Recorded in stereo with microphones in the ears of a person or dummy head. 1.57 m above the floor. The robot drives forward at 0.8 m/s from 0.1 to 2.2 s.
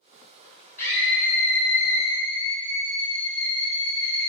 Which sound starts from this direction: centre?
A scream, at 0.8 s.